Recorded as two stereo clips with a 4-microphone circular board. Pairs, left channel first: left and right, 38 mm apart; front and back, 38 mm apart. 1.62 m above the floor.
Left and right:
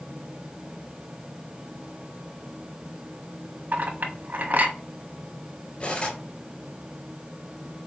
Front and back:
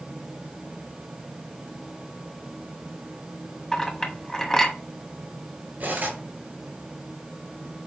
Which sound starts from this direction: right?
A clink, at 3.7 s.